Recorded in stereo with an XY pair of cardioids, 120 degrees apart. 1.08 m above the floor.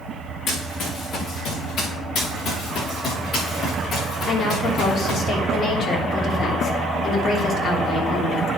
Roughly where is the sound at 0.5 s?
Ahead left.